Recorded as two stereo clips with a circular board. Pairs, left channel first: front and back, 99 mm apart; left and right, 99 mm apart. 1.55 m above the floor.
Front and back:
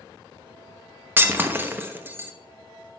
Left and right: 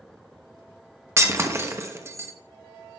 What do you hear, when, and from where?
1.2 s breaking glass: 130° right, 0.9 m